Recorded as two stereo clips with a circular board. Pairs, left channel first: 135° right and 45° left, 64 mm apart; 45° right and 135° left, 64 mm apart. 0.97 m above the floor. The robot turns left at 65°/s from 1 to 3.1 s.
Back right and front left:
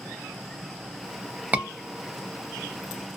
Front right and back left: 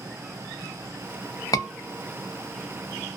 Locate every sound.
1.5 s a scream: 20° right, 0.7 m; by 1.7 s 30° right, 0.7 m